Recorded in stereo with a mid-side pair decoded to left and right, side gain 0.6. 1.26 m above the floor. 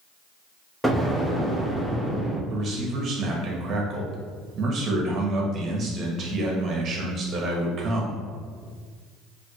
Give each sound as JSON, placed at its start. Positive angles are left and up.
{"t": 0.8, "sound": "an explosion", "azimuth_deg": 5, "distance_m": 1.0}
{"t": 2.5, "sound": "a man speaking", "azimuth_deg": -45, "distance_m": 1.4}